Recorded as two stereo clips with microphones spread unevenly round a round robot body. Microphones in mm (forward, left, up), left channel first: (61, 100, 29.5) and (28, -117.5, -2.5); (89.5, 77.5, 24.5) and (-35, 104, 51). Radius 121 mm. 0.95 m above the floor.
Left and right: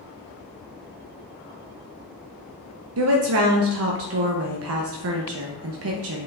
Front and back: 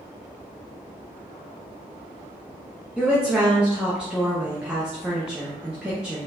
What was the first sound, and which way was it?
A woman speaking, 100° right.